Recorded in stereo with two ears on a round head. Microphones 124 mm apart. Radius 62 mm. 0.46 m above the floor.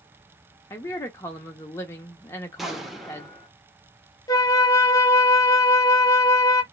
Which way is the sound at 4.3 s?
25° left (ahead or behind).